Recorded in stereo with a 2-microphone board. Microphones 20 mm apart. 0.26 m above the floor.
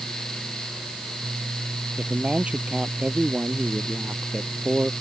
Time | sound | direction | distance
2.0 | a man speaking | 80° right | ?